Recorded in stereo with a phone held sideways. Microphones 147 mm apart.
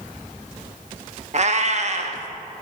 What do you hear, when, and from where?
1.3 s a cat meowing: 50° right (ahead or behind), 0.7 m